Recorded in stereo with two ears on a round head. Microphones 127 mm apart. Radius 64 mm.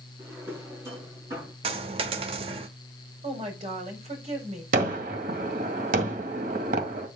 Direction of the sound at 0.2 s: 20° right (ahead or behind).